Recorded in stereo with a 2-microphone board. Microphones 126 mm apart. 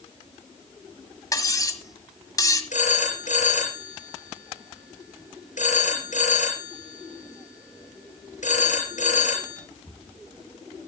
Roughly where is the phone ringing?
Left.